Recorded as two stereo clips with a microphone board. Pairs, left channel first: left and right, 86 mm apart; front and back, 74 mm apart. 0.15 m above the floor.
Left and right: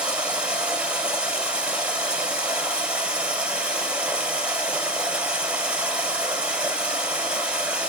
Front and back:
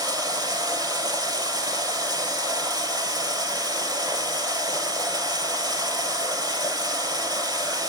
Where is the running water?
165° right, 2.5 m.